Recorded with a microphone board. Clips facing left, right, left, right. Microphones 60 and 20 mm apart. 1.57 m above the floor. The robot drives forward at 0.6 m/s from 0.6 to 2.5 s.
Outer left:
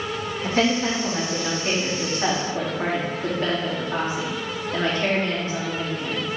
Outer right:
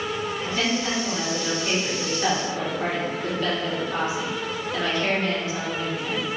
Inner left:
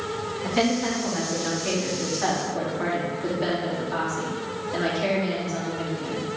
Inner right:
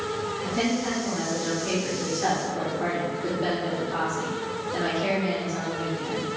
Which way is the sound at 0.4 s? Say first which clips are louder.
Outer left 6 dB, inner left 4 dB; 55° left (ahead or behind).